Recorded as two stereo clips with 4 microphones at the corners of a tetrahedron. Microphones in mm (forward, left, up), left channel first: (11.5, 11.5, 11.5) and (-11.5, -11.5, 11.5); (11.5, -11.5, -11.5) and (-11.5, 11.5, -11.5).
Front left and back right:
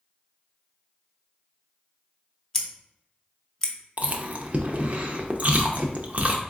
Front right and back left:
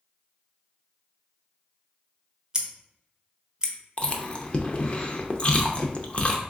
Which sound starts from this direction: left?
Scissors, at 2.5 s.